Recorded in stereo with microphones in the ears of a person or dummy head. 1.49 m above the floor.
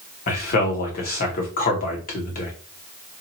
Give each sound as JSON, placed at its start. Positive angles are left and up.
{"t": 0.3, "sound": "a man speaking", "side_deg": 50, "distance_m": 1.2}